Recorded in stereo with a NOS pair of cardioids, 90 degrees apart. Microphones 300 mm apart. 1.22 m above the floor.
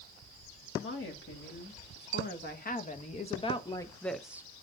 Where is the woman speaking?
45° left, 2.5 m; by 4.5 s 10° right, 0.8 m.